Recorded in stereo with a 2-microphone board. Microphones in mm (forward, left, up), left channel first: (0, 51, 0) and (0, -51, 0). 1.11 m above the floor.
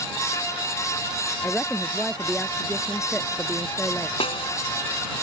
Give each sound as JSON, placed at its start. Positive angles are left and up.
{"t": 1.4, "sound": "a woman speaking", "side_deg": 10}
{"t": 4.2, "sound": "a snare drum", "side_deg": 65}